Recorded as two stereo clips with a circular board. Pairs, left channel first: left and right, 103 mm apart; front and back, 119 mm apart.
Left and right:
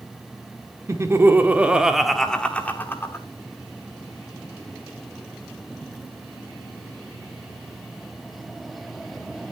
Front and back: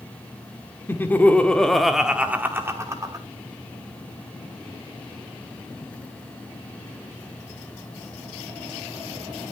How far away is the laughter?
About 1.3 m.